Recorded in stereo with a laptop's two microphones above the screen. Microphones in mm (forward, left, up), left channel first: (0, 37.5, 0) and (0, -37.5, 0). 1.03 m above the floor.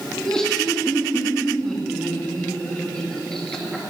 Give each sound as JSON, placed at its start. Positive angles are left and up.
{"t": 0.1, "sound": "laughter", "side_deg": 10, "distance_m": 2.0}